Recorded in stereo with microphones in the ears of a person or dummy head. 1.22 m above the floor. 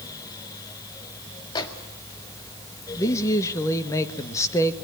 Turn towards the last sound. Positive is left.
turn(degrees=20)  # may be behind; listen again after turning